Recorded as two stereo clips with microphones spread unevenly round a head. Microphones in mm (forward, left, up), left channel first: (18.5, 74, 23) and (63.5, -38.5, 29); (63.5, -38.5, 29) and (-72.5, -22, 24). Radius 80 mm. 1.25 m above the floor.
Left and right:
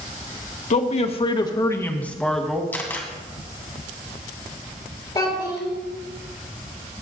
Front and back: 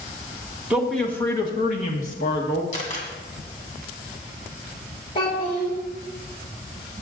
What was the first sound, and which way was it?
A man speaking, 90° left.